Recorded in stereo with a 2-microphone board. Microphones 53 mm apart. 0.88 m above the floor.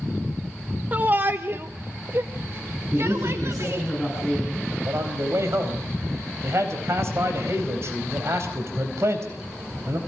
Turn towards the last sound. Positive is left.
turn(degrees=-60)  # may be behind; listen again after turning